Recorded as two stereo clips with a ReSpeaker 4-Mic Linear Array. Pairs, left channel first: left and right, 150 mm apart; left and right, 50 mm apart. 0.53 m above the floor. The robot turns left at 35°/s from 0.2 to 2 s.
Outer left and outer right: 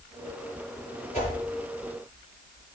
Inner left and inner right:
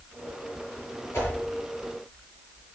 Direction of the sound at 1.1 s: 50° left (ahead or behind).